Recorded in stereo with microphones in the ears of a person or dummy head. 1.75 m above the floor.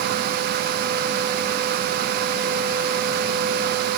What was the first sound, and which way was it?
Only background noise.